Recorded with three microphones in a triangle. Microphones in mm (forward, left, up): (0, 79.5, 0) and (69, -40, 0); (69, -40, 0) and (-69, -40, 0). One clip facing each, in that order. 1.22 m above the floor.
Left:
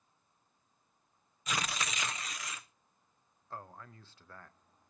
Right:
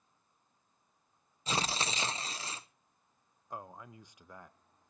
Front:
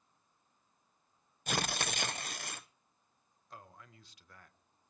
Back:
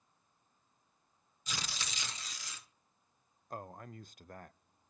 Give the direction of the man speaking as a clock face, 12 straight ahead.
4 o'clock.